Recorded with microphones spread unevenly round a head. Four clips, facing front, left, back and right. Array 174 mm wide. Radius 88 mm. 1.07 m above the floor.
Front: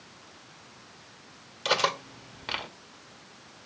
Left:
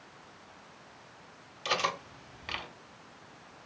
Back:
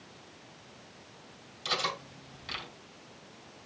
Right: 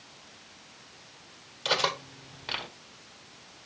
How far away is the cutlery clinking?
About 1.2 m.